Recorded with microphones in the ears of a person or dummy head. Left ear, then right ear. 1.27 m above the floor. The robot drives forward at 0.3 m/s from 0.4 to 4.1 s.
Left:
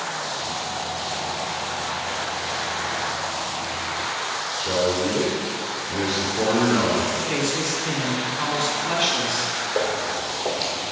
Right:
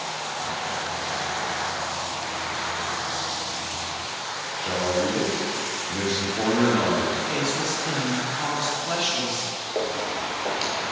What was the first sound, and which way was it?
A man speaking, 55° right (ahead or behind).